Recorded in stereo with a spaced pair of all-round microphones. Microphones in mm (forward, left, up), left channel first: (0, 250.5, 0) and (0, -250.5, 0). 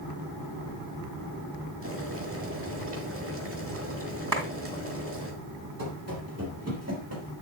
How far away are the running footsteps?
About 3.5 m.